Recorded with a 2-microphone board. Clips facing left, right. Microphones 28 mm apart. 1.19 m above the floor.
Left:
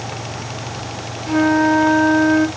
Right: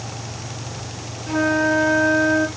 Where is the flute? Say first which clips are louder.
Left 4 dB; 40° left (ahead or behind), 1.4 m.